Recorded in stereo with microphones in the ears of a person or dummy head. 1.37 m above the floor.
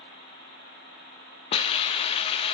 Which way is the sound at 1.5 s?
30° left (ahead or behind).